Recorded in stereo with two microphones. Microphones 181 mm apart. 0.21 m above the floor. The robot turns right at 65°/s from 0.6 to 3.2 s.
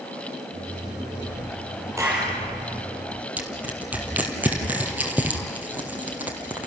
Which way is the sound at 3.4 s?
10° right (ahead or behind).